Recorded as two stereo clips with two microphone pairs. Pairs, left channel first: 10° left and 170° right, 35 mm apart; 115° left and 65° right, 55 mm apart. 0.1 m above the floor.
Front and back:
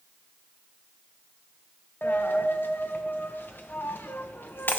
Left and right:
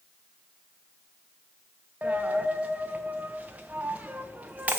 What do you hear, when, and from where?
2.0 s a dropped coin: 5° right, 0.7 m